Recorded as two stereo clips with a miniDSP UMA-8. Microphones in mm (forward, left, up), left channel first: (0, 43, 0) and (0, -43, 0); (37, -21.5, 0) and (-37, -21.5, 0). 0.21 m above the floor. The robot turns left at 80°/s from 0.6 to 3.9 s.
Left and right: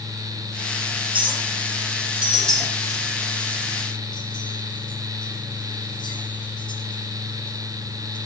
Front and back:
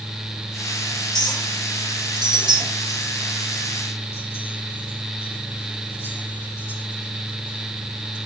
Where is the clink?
75° right, 6 m; by 8.2 s 60° left, 6 m.